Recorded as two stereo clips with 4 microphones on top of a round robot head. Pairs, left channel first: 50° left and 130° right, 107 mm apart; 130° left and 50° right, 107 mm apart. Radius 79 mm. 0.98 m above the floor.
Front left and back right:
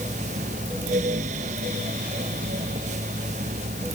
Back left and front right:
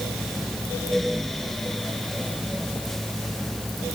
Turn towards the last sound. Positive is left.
No sound to turn to.